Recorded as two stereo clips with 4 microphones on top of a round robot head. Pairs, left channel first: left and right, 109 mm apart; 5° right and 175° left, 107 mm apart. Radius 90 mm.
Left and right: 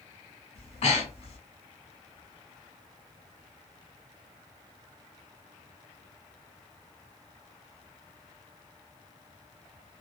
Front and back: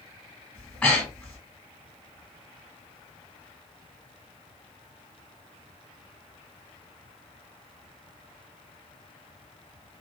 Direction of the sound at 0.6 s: 70° left.